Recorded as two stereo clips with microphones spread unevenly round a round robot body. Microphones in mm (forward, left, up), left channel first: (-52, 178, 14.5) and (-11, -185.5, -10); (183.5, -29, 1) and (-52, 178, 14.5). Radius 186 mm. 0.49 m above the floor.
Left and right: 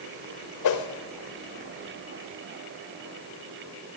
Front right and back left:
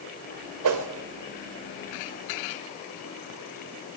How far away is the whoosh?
About 2.5 m.